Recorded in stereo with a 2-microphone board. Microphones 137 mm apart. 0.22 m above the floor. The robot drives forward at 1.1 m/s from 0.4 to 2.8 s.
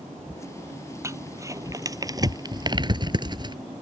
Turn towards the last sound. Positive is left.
turn(degrees=-35)  # may be behind; listen again after turning